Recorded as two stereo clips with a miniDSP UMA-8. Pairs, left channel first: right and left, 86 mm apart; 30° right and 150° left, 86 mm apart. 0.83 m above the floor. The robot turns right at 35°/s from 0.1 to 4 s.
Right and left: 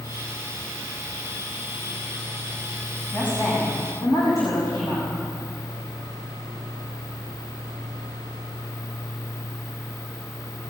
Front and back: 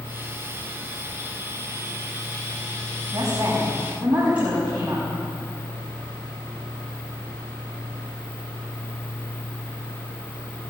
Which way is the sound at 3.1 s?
165° right.